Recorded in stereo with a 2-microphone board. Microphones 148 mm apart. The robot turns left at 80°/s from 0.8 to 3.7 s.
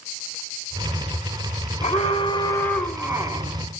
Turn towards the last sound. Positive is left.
turn(degrees=-65)